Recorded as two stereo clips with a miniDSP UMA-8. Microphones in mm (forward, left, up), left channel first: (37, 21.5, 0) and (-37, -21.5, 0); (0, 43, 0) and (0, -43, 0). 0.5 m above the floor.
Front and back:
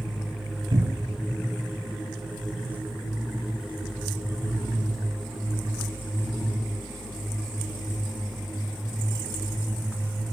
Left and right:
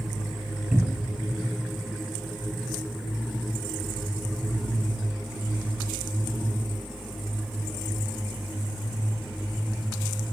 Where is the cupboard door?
170° right, 0.9 m.